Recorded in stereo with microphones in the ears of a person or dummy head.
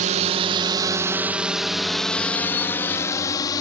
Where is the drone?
40° right (ahead or behind); by 3.6 s 25° left (ahead or behind).